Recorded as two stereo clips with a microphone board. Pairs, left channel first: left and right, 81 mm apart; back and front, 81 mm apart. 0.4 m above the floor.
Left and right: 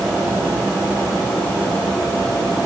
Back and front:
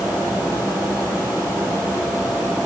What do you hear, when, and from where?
Only background noise.